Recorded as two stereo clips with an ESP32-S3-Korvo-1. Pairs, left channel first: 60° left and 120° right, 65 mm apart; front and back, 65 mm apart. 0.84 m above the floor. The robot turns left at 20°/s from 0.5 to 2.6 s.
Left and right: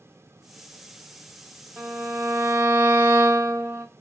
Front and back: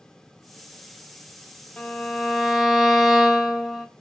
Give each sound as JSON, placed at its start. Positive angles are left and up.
{"t": 1.8, "sound": "a violin", "azimuth_deg": -65, "distance_m": 1.0}